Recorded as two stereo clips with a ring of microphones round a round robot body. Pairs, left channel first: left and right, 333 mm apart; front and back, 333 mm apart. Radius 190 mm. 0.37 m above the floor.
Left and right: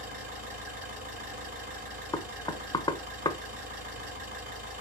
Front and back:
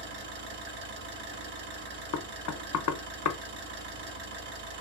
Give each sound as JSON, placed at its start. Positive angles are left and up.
{"t": 0.0, "sound": "an engine running", "azimuth_deg": -160, "distance_m": 1.6}
{"t": 2.1, "sound": "knocking", "azimuth_deg": 15, "distance_m": 0.6}